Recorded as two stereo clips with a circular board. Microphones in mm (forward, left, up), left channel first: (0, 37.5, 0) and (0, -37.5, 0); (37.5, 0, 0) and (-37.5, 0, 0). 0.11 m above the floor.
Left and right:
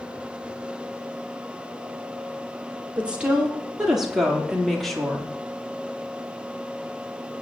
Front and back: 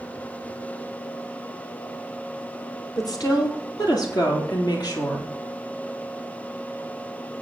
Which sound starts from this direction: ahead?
A woman speaking, at 3.0 s.